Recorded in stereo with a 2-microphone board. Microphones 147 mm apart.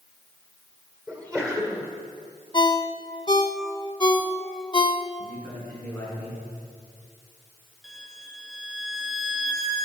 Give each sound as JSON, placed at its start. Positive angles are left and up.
{"t": 1.1, "sound": "a sneeze", "side_deg": 10, "distance_m": 1.7}
{"t": 2.5, "sound": "a ringtone", "side_deg": 30, "distance_m": 0.6}
{"t": 5.2, "sound": "a man speaking", "side_deg": 10, "distance_m": 5.5}
{"t": 7.8, "sound": "a violin", "side_deg": 0, "distance_m": 1.7}